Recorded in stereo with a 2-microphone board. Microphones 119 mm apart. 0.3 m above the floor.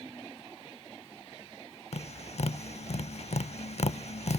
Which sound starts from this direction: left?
Tapping, at 1.9 s.